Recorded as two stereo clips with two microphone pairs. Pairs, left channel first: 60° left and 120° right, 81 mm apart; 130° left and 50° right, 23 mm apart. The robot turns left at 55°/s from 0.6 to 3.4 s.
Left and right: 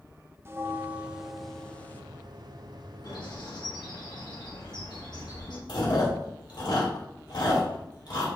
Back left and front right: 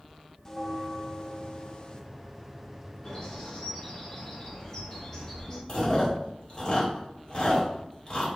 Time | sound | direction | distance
0.5 | a bell | 170° right | 0.5 m
3.0 | a bird | 75° left | 3.5 m
5.7 | chewing | 70° left | 3 m